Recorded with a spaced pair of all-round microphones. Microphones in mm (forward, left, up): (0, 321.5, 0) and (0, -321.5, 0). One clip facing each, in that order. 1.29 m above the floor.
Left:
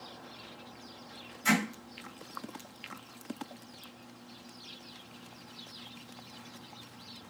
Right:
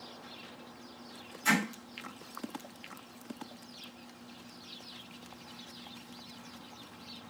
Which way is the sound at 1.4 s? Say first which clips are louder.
Left 2 dB; 50° left (ahead or behind).